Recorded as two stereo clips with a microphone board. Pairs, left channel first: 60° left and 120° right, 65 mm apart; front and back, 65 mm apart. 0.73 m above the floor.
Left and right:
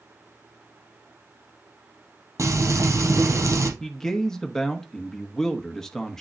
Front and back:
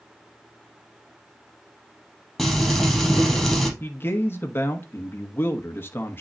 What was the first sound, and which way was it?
Frying, 90° right.